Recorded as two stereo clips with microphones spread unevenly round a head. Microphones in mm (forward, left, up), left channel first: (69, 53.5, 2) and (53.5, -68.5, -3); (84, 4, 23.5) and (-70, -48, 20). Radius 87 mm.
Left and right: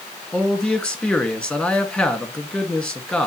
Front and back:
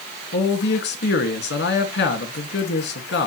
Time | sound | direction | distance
0.3 | a man speaking | straight ahead | 2.5 m